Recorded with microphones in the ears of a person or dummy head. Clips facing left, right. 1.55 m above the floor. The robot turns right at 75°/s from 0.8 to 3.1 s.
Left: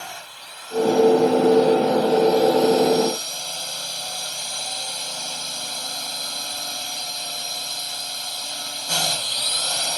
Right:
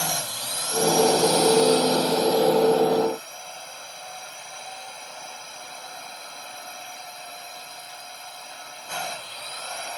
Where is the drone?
125° right; by 10.0 s 50° left.